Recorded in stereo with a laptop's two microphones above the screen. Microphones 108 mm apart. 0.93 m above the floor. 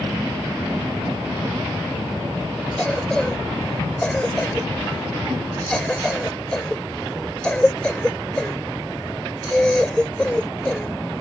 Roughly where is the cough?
Centre.